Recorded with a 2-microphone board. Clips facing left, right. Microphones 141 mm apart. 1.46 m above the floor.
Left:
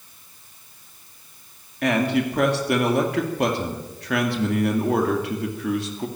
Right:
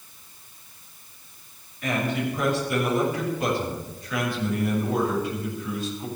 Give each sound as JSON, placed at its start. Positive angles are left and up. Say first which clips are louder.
{"t": 1.8, "sound": "a man speaking", "louder": "left 5 dB", "side_deg": 75, "distance_m": 2.5}